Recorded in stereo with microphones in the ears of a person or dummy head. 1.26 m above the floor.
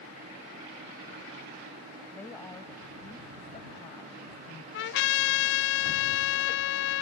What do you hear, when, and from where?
2.1 s a woman speaking: 10° left (ahead or behind); by 4.6 s 35° left (ahead or behind)
4.7 s a trumpet: 65° left (ahead or behind)